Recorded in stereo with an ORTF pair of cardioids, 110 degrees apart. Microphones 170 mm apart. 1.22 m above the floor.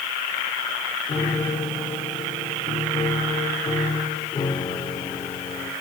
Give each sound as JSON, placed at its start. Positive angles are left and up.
{"t": 1.1, "sound": "a piano", "azimuth_deg": 30, "distance_m": 2.0}